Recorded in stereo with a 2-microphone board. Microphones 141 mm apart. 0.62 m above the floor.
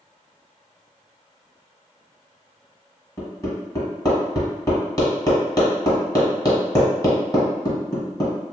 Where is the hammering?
25° left (ahead or behind), 1.4 m.